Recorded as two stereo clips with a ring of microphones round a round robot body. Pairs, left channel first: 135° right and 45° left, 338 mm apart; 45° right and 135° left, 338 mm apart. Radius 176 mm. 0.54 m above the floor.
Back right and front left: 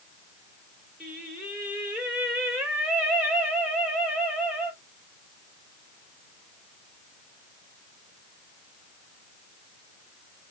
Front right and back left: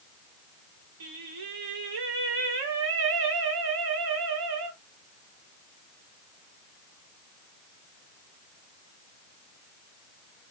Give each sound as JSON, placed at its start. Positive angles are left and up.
{"t": 1.0, "sound": "singing", "azimuth_deg": 130, "distance_m": 2.5}